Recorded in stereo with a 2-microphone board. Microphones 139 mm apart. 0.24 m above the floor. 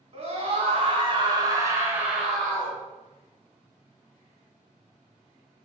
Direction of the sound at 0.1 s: 50° right (ahead or behind).